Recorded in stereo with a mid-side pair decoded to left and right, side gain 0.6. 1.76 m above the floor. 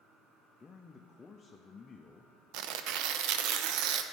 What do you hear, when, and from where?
0.6 s a man speaking: 30° left, 0.6 m
2.5 s tearing paper: 70° right, 0.6 m